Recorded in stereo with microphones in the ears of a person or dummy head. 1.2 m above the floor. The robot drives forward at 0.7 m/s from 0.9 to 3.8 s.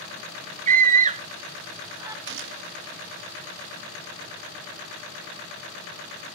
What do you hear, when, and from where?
0.7 s a scream: 40° right (ahead or behind), 0.6 m; by 2.2 s 15° right (ahead or behind), 1.4 m
2.3 s a gunshot: 70° right (ahead or behind), 1.1 m; by 2.8 s 80° right, 1.1 m